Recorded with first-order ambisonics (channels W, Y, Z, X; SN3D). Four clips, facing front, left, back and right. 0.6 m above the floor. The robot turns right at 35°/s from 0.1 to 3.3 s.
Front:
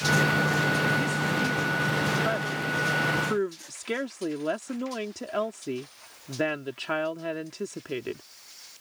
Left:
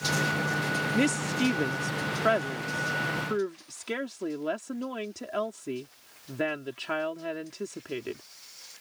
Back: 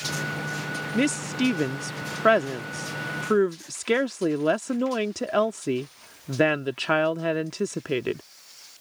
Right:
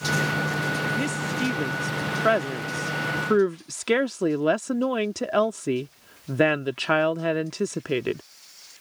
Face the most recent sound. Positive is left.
turn(degrees=-125)